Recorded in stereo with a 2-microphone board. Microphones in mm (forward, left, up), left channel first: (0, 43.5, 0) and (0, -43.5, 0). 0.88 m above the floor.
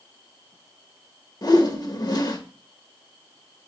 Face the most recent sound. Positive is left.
turn(degrees=50)  # may be behind; listen again after turning